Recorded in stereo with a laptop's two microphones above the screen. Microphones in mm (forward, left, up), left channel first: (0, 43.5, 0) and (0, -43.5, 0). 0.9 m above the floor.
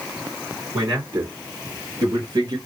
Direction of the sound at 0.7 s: 70° right (ahead or behind).